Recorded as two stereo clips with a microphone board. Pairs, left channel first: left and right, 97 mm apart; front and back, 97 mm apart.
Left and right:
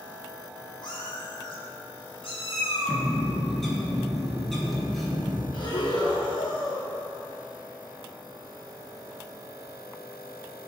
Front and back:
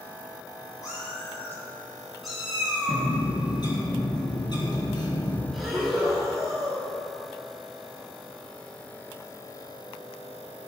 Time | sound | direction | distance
0.8 | a cat meowing | 55° left | 2 m
2.9 | a bird | 5° left | 1.7 m
5.5 | breathing | 95° left | 1.6 m